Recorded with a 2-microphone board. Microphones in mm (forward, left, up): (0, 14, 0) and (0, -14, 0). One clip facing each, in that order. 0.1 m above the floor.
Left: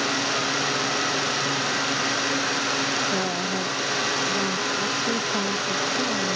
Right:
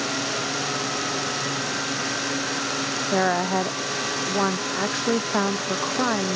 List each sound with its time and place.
3.1 s a woman speaking: 55° right (ahead or behind); by 6.4 s 70° right (ahead or behind)